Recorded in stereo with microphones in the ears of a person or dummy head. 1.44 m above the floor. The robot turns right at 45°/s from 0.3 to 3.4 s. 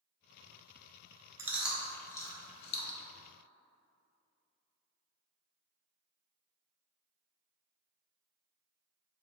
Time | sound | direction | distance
1.4 | chewing | 15° right (ahead or behind) | 0.6 m